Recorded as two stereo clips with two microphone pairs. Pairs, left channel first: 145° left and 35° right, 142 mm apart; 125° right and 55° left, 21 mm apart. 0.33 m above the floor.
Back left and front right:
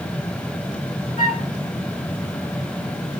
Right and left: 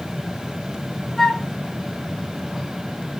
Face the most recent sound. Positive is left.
turn(degrees=160)